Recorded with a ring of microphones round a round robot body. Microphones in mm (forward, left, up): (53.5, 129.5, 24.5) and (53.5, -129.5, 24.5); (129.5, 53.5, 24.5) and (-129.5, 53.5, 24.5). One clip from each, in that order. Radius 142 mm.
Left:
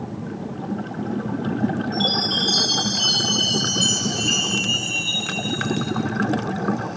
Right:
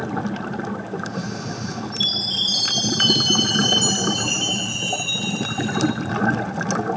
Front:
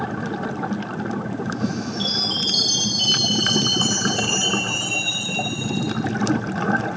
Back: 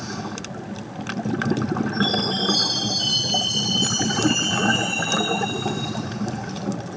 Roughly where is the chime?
Ahead.